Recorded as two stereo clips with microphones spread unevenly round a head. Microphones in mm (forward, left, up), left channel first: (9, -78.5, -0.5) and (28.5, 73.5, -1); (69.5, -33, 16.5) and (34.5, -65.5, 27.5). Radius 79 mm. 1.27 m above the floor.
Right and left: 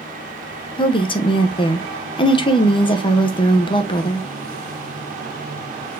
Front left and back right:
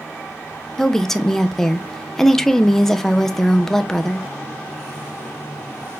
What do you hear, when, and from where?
0.8 s a woman speaking: 40° right, 0.8 m